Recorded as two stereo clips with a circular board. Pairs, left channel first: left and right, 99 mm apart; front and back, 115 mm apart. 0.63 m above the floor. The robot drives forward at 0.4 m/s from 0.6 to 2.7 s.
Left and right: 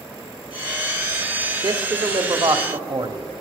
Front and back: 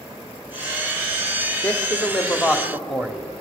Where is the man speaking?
75° right, 1.3 m; by 3.2 s 95° right, 1.3 m.